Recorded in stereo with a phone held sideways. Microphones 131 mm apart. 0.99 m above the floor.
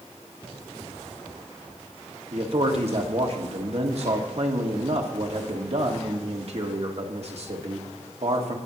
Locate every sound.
2.3 s a man speaking: 55° right (ahead or behind), 1.5 m